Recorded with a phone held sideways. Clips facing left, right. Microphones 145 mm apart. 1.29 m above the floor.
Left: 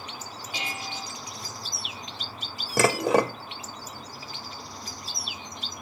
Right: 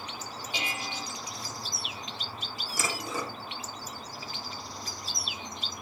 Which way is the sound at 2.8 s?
65° left (ahead or behind).